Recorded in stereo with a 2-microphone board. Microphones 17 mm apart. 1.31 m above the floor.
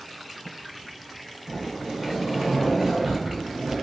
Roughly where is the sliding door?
Right.